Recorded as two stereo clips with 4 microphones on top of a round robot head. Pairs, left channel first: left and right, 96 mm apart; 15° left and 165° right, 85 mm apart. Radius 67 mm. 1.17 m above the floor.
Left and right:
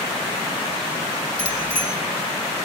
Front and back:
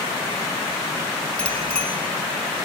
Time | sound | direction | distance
1.4 | a bicycle bell | 95° left | 9.5 m